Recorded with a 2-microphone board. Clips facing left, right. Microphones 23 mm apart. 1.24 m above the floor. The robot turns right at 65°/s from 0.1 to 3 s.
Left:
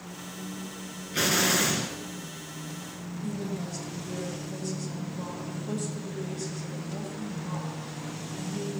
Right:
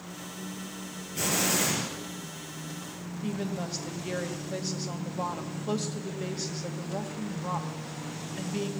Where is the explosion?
115° left, 3 m; by 1.9 s 165° left, 3 m.